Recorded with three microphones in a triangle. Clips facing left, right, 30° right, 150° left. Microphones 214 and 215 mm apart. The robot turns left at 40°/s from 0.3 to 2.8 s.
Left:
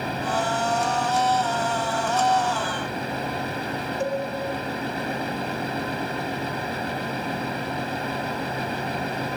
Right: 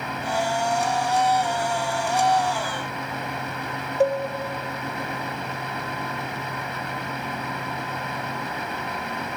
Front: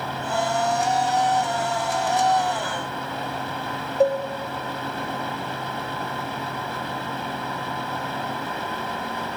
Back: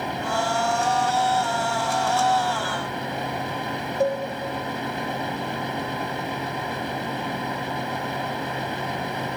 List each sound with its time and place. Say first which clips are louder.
4.0 s a cowbell: right 7 dB, front 4 dB; 90° right, 0.9 m